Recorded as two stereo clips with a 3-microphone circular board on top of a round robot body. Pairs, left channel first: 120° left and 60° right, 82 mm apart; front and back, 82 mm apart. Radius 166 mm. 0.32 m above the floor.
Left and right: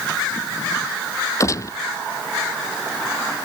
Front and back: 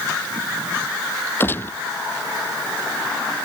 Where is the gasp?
I don't hear a gasp.